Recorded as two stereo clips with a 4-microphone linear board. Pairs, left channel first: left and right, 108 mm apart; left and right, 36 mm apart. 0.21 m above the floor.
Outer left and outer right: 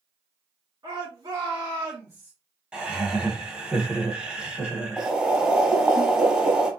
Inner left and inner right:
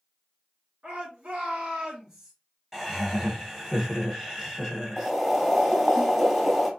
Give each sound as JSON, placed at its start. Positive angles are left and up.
{"t": 0.8, "sound": "a shout", "side_deg": -40, "distance_m": 2.0}
{"t": 2.7, "sound": "laughter", "side_deg": -10, "distance_m": 1.2}
{"t": 5.0, "sound": "boiling", "side_deg": -10, "distance_m": 1.2}